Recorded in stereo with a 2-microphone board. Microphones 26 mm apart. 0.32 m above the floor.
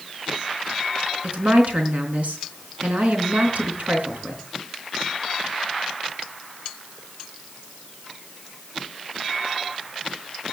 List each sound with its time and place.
1.2 s a woman speaking: 75° right (ahead or behind), 4 m